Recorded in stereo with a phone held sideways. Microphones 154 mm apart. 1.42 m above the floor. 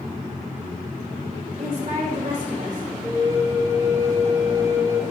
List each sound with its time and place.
1.6 s a woman speaking: 60° right (ahead or behind), 4.5 m
3.0 s a flute: 20° right (ahead or behind), 1.7 m